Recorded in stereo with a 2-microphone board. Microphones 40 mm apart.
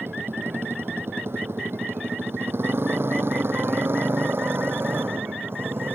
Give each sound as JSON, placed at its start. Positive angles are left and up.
{"t": 0.0, "sound": "a motorcycle", "side_deg": -80}